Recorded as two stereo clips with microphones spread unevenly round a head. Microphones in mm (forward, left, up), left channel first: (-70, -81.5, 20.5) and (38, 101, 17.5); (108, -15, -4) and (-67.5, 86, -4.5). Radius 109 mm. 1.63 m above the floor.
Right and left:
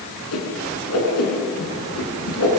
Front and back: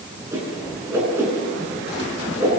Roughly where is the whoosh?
Behind right.